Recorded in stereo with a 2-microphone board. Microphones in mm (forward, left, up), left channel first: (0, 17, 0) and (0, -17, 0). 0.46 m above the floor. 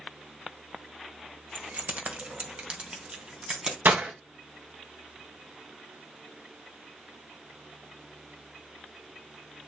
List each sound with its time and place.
1.6 s keys jangling: 55° right (ahead or behind), 1.1 m; by 3.8 s 25° right (ahead or behind), 3 m
3.9 s breaking glass: 65° right (ahead or behind), 1.9 m